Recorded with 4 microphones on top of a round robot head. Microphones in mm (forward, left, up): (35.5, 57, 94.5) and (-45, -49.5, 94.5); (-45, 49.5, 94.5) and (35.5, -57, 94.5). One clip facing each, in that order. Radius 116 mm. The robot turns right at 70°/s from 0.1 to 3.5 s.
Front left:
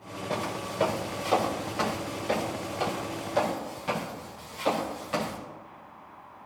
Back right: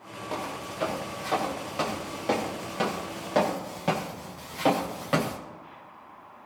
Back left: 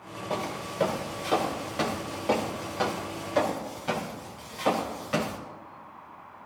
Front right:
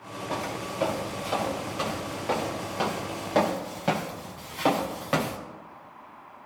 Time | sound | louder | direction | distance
0.3 | footsteps | front left 2 dB, even | 60° left | 5 m